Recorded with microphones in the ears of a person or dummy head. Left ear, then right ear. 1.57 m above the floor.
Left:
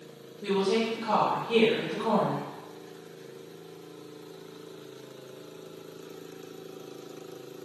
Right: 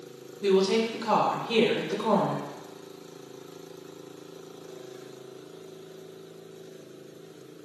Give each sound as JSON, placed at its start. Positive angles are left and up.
{"t": 0.4, "sound": "a woman speaking", "side_deg": -55, "distance_m": 1.5}